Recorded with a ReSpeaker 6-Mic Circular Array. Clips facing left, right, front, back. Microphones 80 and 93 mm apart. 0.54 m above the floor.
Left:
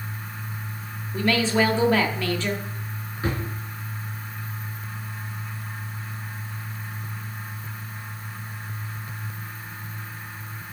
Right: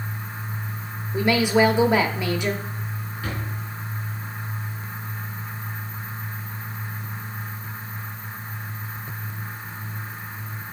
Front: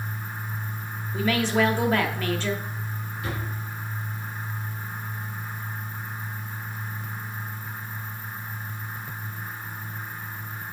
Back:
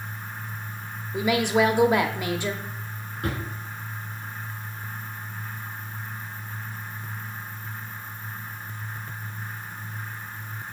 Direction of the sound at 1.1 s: 130° right.